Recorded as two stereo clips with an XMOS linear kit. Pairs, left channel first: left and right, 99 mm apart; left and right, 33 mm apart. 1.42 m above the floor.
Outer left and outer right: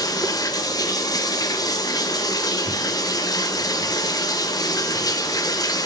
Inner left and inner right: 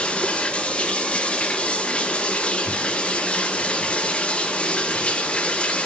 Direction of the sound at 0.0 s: 40° left (ahead or behind).